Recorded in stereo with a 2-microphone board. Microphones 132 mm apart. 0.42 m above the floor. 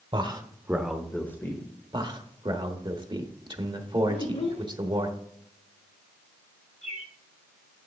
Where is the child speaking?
55° left (ahead or behind), 0.7 m.